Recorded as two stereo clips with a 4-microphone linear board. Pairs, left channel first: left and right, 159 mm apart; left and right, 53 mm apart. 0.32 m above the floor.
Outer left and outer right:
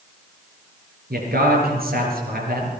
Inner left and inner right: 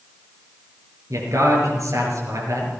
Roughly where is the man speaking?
Right.